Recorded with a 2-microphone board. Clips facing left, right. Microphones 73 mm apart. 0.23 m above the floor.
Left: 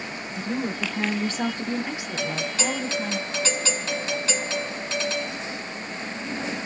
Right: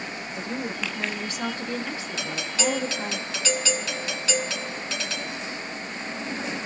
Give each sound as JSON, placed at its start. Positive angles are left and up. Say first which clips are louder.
{"t": 0.3, "sound": "a woman speaking", "louder": "left 4 dB", "side_deg": 55, "distance_m": 1.7}
{"t": 2.2, "sound": "a doorbell", "louder": "left 1 dB", "side_deg": 35, "distance_m": 2.5}